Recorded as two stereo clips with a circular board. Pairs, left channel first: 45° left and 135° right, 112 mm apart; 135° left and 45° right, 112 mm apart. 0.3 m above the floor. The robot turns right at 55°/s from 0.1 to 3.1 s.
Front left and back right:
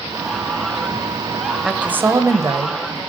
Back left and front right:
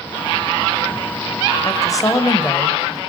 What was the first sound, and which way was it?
A woman speaking, 145° left.